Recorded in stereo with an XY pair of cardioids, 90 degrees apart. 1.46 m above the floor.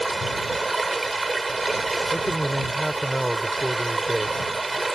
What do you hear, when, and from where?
0.0 s running water: 20° right
2.1 s a man speaking: 5° right